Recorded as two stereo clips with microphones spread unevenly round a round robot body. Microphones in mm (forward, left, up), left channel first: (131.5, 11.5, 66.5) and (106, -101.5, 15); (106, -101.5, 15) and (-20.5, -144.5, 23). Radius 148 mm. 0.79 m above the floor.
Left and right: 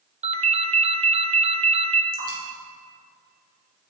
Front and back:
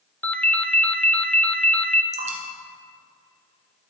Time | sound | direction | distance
0.2 | a ringtone | 60° right | 1.0 m
2.1 | dripping | 130° right | 2 m